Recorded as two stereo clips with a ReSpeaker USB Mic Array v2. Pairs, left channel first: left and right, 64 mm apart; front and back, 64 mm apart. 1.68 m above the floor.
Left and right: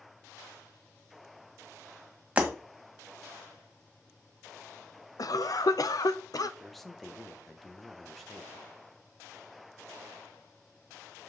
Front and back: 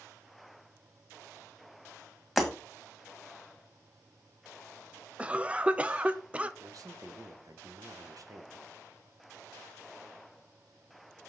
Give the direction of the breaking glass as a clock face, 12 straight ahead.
3 o'clock.